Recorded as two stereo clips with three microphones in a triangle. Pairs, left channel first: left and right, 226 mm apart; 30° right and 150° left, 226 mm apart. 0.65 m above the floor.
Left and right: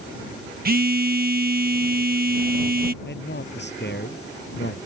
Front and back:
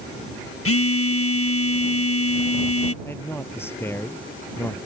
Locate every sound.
0.7 s a phone buzzing: 40° right
3.0 s a man speaking: 50° left